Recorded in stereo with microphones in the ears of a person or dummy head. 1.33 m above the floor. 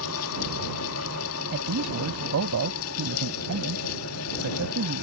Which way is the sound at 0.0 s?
80° left.